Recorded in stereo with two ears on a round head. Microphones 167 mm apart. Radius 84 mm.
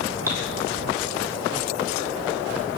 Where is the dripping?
20° right (ahead or behind), 3.5 m.